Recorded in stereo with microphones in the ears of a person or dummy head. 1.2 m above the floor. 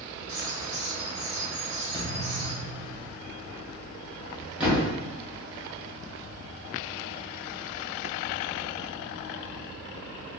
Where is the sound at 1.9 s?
25° right (ahead or behind), 1.5 m.